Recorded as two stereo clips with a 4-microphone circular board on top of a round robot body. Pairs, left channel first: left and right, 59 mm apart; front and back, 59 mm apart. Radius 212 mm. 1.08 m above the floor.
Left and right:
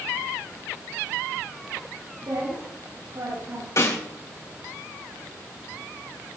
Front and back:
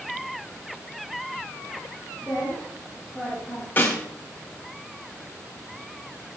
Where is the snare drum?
55° left, 4 m.